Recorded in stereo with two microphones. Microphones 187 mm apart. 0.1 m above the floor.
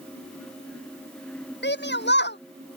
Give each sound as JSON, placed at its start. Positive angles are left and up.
{"t": 1.6, "sound": "a shout", "side_deg": 70}